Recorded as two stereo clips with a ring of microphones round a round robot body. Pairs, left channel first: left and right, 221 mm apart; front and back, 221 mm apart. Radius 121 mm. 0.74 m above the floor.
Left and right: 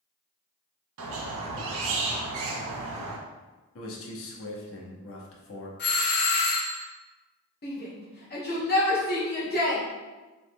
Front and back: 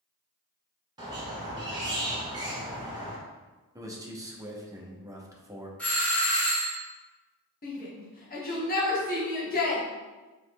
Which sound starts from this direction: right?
A squeak, at 1.0 s.